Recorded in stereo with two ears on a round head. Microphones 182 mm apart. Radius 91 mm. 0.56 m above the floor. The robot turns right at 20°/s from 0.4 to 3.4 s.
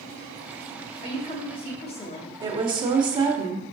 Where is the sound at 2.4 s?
25° right (ahead or behind), 0.7 m; by 3.7 s 20° right (ahead or behind), 0.7 m.